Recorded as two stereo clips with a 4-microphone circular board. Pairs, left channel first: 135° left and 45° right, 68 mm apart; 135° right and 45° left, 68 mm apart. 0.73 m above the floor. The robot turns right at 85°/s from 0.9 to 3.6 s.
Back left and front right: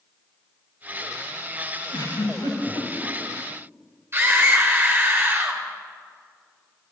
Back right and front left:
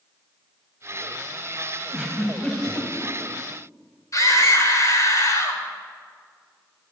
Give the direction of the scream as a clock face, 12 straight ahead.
3 o'clock.